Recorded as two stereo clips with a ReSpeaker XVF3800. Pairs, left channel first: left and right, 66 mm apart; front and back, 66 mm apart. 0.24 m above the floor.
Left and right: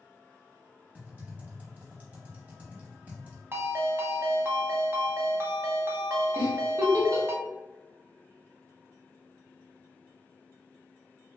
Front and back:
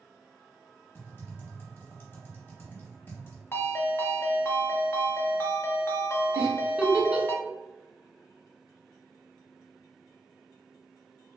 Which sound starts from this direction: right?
A giggle, at 6.3 s.